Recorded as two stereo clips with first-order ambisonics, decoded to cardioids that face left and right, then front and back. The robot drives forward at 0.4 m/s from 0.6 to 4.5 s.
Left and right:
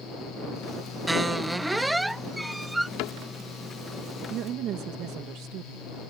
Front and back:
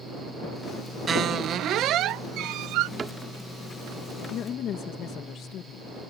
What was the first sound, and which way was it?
A squeak, 165° right.